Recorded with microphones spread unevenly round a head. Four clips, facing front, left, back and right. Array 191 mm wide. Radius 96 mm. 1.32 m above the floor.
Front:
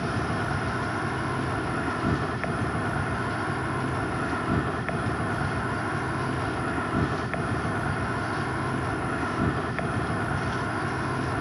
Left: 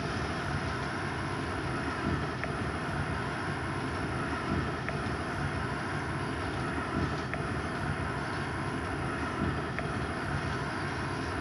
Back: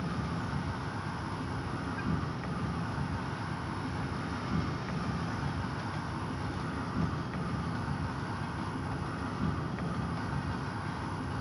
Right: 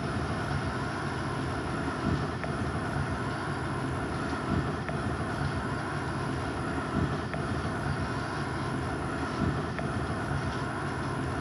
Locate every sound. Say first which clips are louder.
0.0 s an insect: right 2 dB, front 8 dB; 10° right, 1.4 m